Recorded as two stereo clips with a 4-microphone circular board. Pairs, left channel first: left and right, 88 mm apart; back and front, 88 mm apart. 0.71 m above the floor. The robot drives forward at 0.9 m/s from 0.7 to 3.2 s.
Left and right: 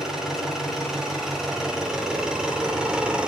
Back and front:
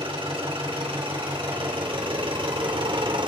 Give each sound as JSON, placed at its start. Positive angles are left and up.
{"t": 0.0, "sound": "an engine running", "azimuth_deg": -5, "distance_m": 4.0}